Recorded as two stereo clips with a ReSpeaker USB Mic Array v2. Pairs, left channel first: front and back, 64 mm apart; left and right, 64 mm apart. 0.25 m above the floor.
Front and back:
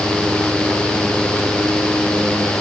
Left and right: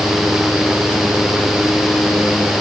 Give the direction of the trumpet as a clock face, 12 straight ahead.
No trumpet in this recording.